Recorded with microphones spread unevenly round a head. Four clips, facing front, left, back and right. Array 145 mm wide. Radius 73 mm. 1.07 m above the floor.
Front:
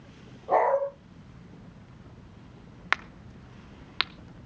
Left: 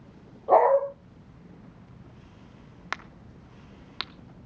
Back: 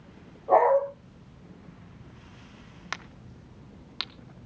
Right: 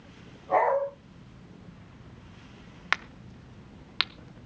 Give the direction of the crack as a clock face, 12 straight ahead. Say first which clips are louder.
Right 5 dB, front 9 dB; 12 o'clock.